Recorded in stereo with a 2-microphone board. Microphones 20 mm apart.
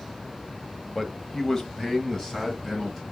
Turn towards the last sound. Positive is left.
turn(degrees=25)  # may be behind; listen again after turning